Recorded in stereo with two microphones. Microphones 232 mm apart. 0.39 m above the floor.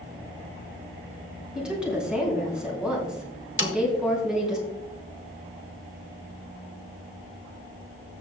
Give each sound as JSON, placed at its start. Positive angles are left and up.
{"t": 1.6, "sound": "a woman speaking", "side_deg": -5, "distance_m": 3.5}
{"t": 3.6, "sound": "a snare drum", "side_deg": 55, "distance_m": 1.2}